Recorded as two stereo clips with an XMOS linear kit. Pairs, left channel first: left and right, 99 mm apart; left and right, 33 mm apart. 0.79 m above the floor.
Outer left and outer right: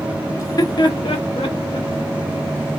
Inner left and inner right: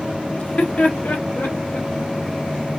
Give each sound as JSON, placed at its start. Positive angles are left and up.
{"t": 0.4, "sound": "laughter", "side_deg": 30, "distance_m": 1.1}